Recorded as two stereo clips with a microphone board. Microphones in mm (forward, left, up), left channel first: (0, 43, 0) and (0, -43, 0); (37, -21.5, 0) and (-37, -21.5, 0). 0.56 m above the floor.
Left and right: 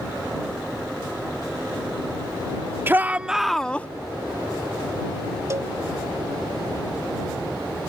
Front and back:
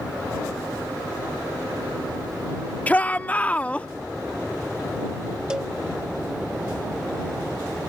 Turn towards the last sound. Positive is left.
turn(degrees=-110)